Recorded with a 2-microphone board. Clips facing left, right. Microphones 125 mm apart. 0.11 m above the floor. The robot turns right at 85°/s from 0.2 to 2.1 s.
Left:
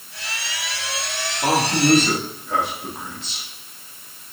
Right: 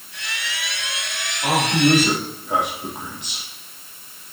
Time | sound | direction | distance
1.4 | a man speaking | 35° left (ahead or behind) | 3.5 m